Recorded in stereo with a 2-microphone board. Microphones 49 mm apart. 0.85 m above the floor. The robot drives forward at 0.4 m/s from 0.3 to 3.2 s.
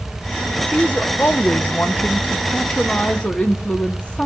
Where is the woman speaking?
30° left (ahead or behind), 0.8 m.